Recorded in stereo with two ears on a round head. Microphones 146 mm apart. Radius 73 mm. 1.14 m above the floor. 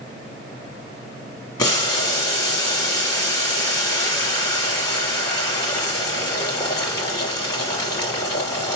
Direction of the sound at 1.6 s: 25° left (ahead or behind).